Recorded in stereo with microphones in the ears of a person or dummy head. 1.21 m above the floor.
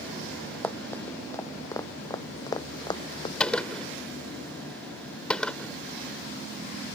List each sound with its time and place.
0.6 s running footsteps: 15° left (ahead or behind); by 3.3 s 35° left (ahead or behind)
3.4 s a gunshot: 5° left (ahead or behind)